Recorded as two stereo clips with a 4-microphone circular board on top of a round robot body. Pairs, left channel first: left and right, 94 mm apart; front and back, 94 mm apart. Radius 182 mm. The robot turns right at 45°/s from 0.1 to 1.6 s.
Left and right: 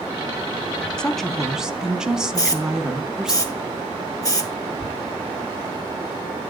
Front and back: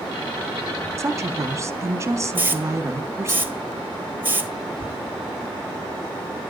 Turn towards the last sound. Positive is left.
turn(degrees=5)